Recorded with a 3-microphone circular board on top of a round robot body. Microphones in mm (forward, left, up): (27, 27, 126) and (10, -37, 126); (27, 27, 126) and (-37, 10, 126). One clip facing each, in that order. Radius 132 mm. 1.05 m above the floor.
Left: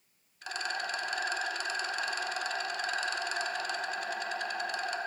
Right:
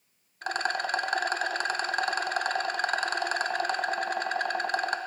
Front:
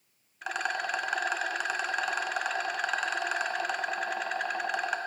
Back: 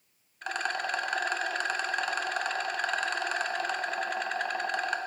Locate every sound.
0.4 s a rattle: 70° right, 0.6 m